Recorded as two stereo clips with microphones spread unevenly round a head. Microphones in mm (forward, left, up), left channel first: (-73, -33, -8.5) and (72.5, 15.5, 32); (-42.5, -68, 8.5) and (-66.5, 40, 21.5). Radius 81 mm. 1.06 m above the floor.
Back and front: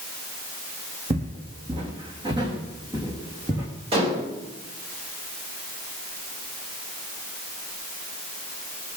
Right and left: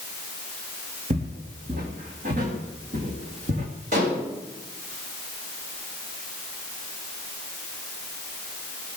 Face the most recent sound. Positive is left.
turn(degrees=75)